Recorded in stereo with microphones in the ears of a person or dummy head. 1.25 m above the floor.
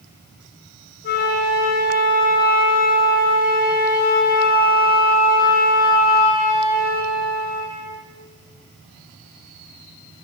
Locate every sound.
1.0 s a flute: 60° left (ahead or behind), 5 m